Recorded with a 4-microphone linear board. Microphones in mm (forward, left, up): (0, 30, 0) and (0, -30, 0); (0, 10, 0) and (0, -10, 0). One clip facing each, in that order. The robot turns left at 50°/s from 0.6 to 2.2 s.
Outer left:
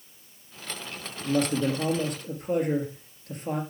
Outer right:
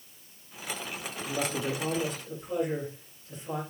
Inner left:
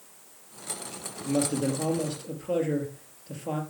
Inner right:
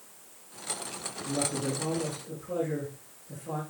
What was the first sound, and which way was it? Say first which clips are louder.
A man speaking: outer left 7 dB, inner left 5 dB; 115° left.